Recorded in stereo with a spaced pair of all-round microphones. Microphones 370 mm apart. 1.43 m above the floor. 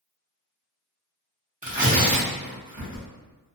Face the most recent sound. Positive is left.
turn(degrees=-20)  # may be behind; listen again after turning